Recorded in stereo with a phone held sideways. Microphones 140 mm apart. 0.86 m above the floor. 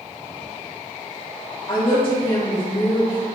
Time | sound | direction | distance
1.7 | a woman speaking | 40° left (ahead or behind) | 1.5 m